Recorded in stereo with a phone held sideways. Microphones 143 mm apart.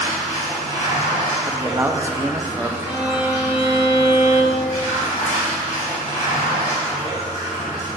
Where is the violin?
15° right (ahead or behind), 1.4 m.